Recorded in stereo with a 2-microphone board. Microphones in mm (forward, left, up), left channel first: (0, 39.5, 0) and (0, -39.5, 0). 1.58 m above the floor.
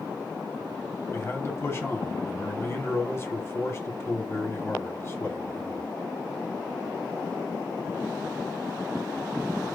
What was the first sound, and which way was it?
A man speaking, 35° left (ahead or behind).